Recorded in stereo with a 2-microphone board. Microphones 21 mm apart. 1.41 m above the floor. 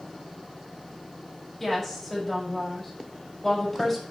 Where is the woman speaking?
10° left (ahead or behind), 5 m.